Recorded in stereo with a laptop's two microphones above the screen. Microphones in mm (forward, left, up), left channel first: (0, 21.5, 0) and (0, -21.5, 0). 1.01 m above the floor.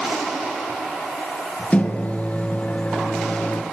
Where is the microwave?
35° left (ahead or behind), 0.6 m.